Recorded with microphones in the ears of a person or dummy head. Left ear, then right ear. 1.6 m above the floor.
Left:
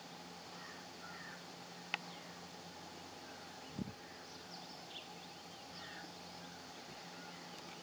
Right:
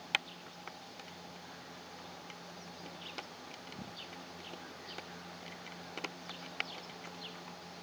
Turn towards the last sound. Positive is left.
No sound to turn to.